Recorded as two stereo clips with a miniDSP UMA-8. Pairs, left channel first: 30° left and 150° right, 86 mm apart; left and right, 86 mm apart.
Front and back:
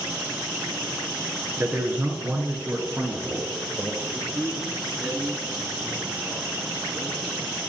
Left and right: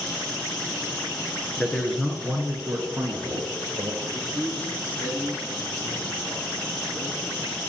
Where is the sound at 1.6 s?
165° left, 1.5 m; by 3.9 s 70° right, 1.6 m.